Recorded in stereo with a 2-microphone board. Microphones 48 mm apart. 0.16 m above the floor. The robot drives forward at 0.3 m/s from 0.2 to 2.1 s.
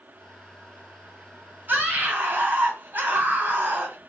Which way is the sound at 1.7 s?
40° right (ahead or behind).